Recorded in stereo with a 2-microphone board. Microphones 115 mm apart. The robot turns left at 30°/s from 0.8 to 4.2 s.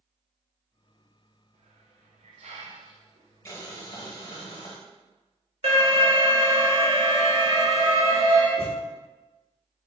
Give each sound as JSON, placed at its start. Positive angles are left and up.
{"t": 1.5, "sound": "a hiss", "side_deg": -70, "distance_m": 0.7}
{"t": 3.5, "sound": "boiling", "side_deg": 25, "distance_m": 0.9}
{"t": 5.6, "sound": "an alarm", "side_deg": -60, "distance_m": 1.0}
{"t": 8.6, "sound": "a thud", "side_deg": 15, "distance_m": 1.0}